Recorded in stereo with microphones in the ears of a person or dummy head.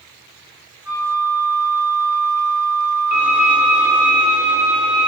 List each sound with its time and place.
0.8 s a flute: 15° right (ahead or behind), 1.8 m
3.1 s a violin: 30° left (ahead or behind), 1.4 m